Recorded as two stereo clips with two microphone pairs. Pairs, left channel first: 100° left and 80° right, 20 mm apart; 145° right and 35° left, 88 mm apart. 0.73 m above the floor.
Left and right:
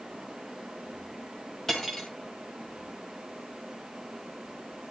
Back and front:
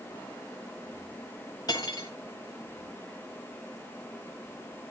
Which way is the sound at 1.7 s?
170° left.